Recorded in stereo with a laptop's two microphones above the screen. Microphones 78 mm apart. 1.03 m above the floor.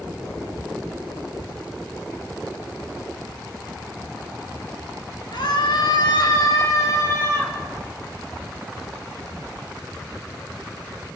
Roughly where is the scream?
Left.